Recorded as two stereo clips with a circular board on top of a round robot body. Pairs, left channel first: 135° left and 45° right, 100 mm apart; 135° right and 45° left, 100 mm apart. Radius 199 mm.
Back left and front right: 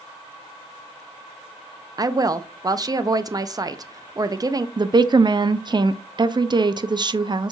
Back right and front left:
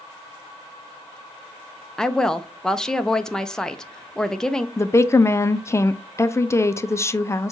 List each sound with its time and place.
2.0 s a woman speaking: 55° right, 0.6 m
4.8 s a woman speaking: 75° right, 0.5 m